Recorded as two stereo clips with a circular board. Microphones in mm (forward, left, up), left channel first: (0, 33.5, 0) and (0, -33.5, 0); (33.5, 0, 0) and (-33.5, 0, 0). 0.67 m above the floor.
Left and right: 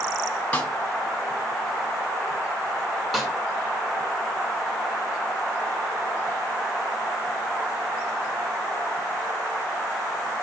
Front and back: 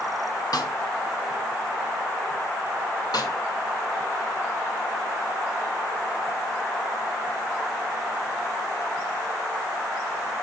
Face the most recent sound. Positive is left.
turn(degrees=0)